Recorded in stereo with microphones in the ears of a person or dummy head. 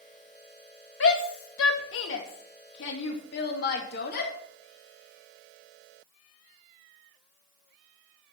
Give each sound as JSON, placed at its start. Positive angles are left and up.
{"t": 1.0, "sound": "a shout", "side_deg": 75, "distance_m": 2.0}